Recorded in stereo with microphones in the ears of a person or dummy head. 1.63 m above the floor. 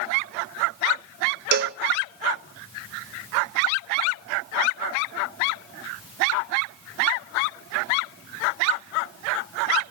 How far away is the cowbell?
About 0.6 m.